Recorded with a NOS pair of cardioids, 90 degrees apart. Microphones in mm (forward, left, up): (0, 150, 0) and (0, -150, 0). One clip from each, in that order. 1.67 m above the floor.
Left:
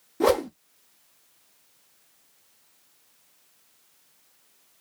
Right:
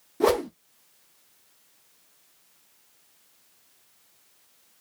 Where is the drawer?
I don't hear a drawer.